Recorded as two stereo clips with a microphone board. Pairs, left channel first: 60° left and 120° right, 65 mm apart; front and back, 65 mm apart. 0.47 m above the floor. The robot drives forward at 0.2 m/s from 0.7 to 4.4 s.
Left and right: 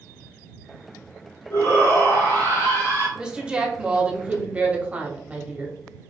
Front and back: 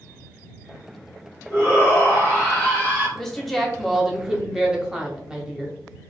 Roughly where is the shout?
Left.